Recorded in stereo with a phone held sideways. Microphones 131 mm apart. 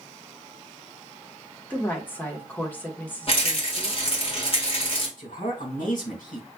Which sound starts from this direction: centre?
A woman speaking, at 1.7 s.